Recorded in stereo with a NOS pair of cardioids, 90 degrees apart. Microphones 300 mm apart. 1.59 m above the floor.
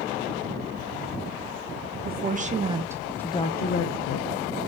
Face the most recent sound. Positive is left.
turn(degrees=70)